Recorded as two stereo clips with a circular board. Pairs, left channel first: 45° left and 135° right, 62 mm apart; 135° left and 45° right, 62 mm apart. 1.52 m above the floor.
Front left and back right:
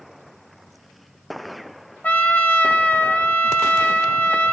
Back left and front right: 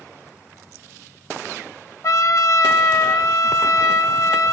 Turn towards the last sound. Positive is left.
turn(degrees=110)